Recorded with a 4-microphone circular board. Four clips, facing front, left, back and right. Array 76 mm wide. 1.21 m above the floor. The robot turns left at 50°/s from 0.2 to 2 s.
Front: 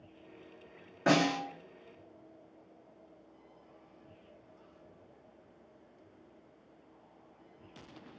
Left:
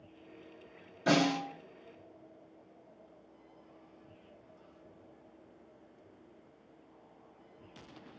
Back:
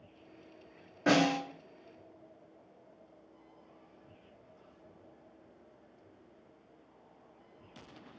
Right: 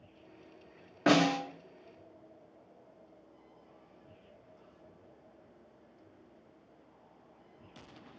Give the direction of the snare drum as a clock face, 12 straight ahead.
3 o'clock.